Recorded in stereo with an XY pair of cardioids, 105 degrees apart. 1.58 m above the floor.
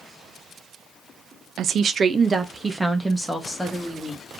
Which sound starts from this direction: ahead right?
A woman speaking, at 1.6 s.